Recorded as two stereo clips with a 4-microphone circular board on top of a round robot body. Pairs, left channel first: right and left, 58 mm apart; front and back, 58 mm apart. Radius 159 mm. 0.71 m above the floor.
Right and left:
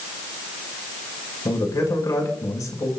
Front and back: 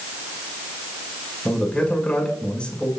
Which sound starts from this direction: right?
A man speaking, at 1.4 s.